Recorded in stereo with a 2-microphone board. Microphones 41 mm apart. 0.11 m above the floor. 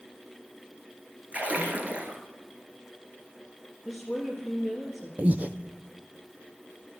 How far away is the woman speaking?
About 3 m.